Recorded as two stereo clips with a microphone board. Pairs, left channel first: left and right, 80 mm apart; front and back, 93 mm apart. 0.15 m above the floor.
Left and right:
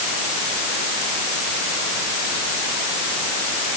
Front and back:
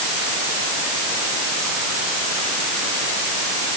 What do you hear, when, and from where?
Only background noise.